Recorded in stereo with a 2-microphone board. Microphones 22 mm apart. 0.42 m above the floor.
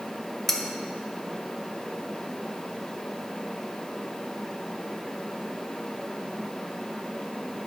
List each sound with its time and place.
0.5 s cutlery clinking: 10° left (ahead or behind), 0.8 m